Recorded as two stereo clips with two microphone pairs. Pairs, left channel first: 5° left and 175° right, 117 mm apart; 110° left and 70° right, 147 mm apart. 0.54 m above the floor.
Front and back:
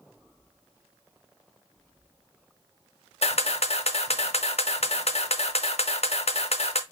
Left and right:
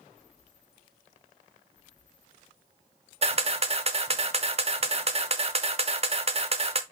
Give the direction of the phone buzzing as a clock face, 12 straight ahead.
No phone buzzing in this recording.